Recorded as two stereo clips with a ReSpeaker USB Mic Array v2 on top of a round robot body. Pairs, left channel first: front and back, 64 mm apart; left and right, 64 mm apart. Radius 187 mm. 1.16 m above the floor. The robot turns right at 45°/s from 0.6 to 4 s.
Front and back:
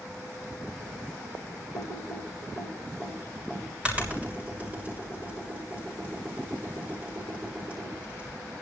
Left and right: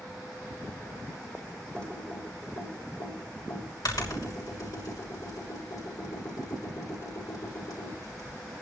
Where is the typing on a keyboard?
15° left, 6.5 m; by 8.3 s 115° left, 6.5 m.